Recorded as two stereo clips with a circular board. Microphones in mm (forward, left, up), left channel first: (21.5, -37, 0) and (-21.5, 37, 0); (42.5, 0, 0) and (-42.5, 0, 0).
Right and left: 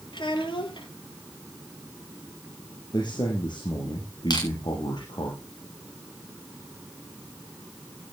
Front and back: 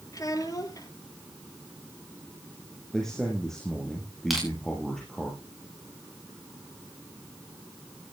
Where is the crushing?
90° right, 8 m.